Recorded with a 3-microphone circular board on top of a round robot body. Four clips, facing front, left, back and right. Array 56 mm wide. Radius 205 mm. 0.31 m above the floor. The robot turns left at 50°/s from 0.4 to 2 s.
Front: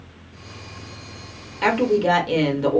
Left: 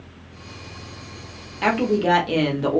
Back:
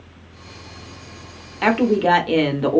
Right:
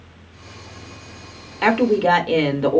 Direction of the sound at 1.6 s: 130° right.